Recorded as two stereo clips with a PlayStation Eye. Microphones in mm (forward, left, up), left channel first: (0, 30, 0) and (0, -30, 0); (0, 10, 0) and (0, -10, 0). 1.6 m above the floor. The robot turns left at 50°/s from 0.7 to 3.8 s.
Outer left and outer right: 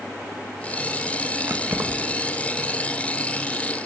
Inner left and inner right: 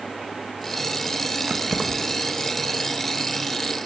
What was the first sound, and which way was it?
Keys jangling, 40° right (ahead or behind).